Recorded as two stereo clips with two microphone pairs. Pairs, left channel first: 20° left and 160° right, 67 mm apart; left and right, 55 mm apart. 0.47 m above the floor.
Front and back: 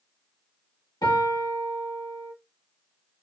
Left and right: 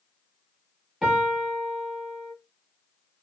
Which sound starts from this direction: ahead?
A piano, at 1.0 s.